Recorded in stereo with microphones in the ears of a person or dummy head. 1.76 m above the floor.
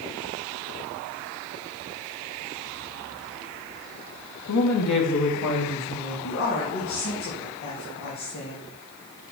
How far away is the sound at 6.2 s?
About 3 m.